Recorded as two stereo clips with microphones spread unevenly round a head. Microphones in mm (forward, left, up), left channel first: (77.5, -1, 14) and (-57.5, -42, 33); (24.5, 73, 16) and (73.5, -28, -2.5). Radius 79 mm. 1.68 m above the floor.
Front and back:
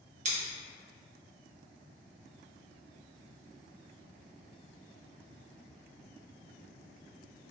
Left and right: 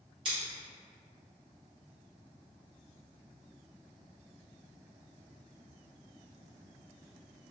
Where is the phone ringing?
I don't hear a phone ringing.